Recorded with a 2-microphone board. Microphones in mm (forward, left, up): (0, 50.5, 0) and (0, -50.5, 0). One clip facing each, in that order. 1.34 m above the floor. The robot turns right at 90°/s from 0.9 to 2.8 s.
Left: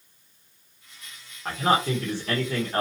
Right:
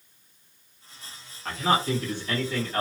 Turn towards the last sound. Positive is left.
turn(degrees=145)